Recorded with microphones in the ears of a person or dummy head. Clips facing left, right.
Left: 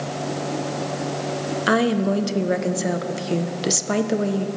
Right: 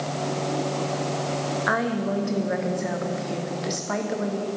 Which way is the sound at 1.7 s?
40° left (ahead or behind).